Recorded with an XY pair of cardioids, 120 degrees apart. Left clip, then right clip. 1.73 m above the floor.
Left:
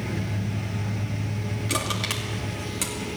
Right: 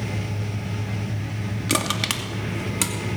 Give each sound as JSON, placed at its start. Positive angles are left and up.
{"t": 1.7, "sound": "crushing", "azimuth_deg": -35, "distance_m": 2.5}